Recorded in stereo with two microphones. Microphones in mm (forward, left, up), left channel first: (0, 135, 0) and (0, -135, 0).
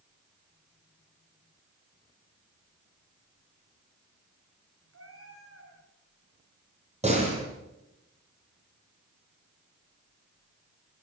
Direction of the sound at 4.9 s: 60° right (ahead or behind).